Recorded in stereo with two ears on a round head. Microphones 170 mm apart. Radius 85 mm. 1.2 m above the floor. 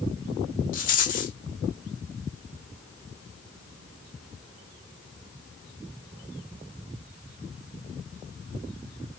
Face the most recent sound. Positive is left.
turn(degrees=45)  # may be behind; listen again after turning